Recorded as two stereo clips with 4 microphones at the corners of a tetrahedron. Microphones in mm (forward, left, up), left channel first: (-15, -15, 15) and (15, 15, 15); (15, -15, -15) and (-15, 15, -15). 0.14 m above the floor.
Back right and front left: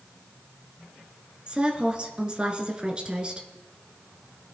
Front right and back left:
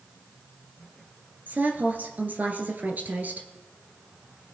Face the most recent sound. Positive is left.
turn(degrees=105)